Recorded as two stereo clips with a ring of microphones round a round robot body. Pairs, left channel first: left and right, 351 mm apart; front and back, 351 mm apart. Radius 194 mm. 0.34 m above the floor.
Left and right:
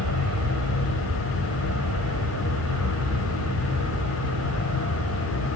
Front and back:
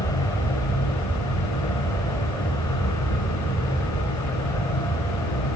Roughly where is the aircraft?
Right.